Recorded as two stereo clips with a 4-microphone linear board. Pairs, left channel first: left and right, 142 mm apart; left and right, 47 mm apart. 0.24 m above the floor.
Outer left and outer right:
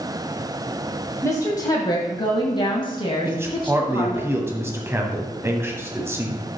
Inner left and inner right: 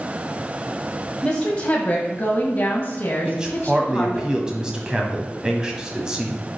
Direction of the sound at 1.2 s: 20° left (ahead or behind).